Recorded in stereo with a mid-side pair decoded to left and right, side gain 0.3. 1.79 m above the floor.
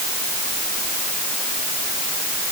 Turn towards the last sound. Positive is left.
No sound to turn to.